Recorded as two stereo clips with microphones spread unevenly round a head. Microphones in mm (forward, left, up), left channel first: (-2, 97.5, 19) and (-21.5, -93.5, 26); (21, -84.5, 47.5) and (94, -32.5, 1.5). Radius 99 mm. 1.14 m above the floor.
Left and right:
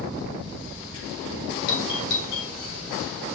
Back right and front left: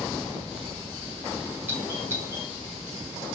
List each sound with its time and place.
1.7 s a doorbell: 105° left, 3.5 m